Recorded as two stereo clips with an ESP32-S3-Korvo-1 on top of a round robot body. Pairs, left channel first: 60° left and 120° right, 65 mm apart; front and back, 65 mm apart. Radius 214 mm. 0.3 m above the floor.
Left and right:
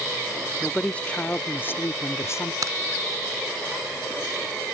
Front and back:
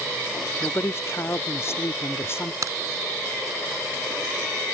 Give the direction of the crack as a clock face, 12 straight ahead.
5 o'clock.